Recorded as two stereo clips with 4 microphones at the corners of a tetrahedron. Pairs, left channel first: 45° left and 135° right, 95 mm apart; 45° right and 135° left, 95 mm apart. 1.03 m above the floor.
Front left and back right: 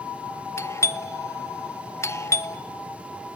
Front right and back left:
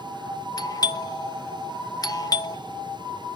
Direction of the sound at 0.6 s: 10° right.